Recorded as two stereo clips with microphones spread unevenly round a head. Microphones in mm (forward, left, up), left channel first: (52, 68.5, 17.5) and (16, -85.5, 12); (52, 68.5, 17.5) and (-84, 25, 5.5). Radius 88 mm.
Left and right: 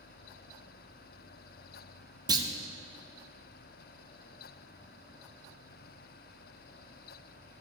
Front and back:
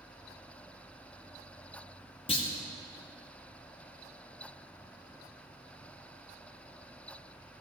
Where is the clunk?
40° right, 0.9 m.